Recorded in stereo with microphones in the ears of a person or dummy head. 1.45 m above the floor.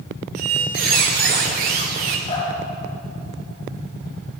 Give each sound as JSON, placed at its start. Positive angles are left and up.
{"t": 0.3, "sound": "a squeak", "side_deg": -40, "distance_m": 0.9}
{"t": 2.3, "sound": "dripping", "side_deg": 45, "distance_m": 3.0}